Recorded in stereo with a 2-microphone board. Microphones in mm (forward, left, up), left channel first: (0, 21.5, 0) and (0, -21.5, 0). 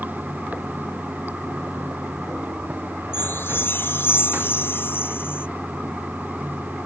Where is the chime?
60° left (ahead or behind).